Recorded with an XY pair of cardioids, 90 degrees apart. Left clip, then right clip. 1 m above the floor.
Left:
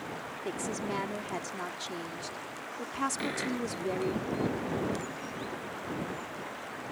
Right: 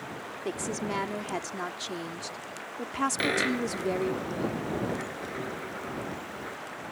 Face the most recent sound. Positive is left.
turn(degrees=-65)